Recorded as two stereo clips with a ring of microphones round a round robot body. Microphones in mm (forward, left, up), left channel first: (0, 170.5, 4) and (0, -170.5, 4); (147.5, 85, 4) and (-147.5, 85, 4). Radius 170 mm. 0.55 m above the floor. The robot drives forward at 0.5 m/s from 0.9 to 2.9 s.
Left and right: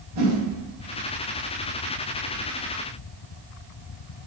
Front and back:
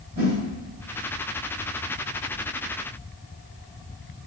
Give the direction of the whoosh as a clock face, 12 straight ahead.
4 o'clock.